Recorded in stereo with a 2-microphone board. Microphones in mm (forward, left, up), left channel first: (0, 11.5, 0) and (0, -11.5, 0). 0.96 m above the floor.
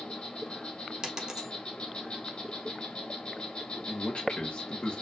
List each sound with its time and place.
0.0 s an insect: 50° left (ahead or behind), 0.9 m
1.0 s a dropped coin: 30° right (ahead or behind), 0.9 m
3.9 s a man speaking: 55° left (ahead or behind), 1.2 m